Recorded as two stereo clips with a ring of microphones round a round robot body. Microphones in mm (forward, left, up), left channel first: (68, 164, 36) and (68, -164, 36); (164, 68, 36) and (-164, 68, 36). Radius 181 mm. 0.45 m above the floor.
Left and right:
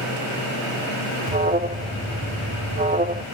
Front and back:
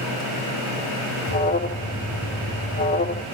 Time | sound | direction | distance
1.3 | an alarm | 40° right | 0.7 m